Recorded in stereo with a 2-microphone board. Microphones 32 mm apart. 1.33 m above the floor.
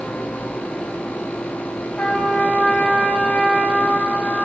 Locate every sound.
2.0 s a trumpet: 40° left (ahead or behind), 0.8 m